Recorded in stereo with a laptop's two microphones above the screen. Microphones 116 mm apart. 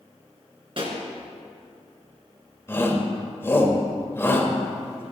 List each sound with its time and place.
0.8 s a pop: 50° right (ahead or behind), 3 m
2.7 s a shout: 20° left (ahead or behind), 3.5 m